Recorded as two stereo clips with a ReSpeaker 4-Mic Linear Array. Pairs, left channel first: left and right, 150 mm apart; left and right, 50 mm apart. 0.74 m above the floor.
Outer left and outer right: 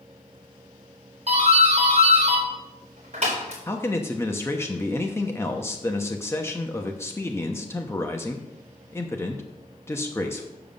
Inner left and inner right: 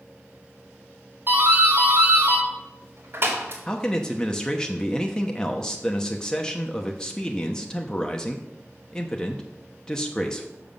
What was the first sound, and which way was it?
A doorbell, 45° right (ahead or behind).